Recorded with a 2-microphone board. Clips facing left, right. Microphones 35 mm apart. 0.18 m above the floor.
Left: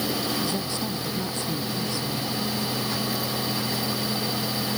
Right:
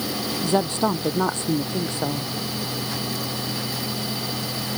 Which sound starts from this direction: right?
A woman speaking, at 0.4 s.